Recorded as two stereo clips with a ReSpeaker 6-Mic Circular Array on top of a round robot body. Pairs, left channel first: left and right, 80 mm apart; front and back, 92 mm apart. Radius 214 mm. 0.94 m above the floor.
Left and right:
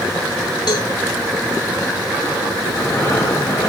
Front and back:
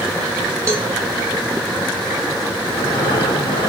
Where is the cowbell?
120° left, 1.6 m.